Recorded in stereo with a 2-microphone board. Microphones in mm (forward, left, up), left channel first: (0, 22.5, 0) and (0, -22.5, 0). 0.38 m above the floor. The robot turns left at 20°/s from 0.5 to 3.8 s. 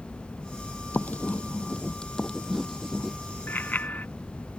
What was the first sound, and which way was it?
Writing, 35° left (ahead or behind).